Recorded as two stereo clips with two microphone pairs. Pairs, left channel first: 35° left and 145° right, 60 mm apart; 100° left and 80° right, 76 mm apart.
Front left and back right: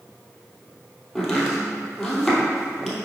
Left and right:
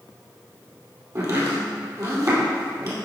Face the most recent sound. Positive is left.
turn(degrees=-50)